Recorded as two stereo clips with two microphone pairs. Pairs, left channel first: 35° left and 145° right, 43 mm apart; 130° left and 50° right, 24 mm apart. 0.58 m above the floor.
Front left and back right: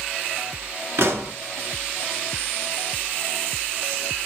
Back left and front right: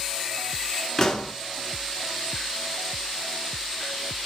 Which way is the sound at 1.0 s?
165° right.